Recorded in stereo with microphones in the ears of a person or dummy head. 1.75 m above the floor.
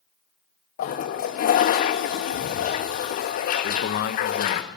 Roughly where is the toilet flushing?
Left.